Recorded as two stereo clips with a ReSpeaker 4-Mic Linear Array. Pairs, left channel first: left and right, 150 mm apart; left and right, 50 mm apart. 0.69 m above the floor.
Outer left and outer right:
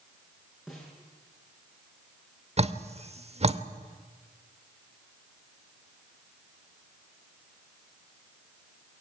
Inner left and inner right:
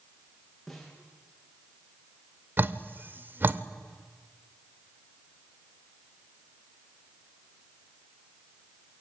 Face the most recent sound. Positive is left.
turn(degrees=-45)  # may be behind; listen again after turning